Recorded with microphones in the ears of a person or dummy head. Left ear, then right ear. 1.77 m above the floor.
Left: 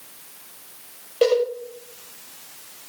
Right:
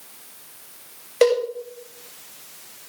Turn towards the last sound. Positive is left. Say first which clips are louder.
# right 1 dB
turn(degrees=-55)  # may be behind; listen again after turning